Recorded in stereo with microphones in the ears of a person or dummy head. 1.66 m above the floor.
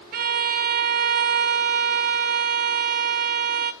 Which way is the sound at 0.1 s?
40° right (ahead or behind).